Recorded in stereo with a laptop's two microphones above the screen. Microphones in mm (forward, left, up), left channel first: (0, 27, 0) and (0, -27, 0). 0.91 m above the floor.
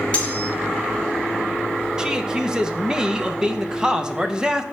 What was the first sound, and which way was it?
Cutlery clinking, 25° left (ahead or behind).